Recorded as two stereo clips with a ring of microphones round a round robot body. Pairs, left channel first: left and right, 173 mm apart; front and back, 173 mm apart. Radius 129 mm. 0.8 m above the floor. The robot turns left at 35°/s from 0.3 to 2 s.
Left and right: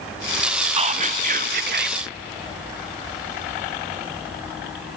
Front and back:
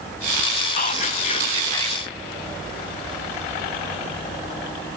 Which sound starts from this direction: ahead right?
Whispering, at 0.8 s.